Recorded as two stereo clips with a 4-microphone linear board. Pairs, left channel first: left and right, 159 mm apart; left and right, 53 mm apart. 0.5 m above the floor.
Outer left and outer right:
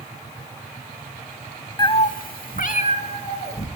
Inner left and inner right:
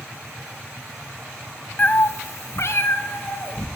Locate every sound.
1.8 s a cat meowing: 25° left (ahead or behind), 0.6 m; by 3.7 s 40° left (ahead or behind), 2.0 m